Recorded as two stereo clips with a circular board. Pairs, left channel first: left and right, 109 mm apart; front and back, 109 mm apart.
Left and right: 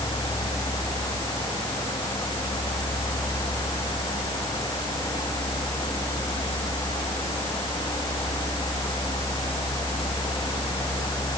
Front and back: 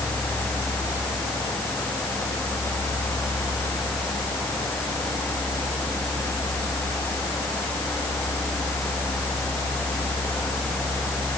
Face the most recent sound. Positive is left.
No sound to turn to.